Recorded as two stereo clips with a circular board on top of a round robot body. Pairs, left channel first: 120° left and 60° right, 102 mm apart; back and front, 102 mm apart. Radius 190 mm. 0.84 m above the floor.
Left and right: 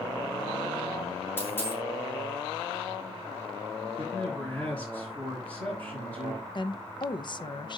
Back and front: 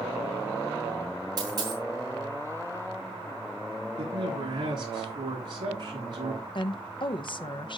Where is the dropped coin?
50° left, 2.5 m.